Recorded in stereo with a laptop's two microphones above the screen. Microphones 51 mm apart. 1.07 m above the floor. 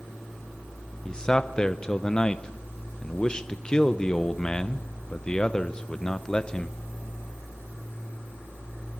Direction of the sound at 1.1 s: 15° left (ahead or behind).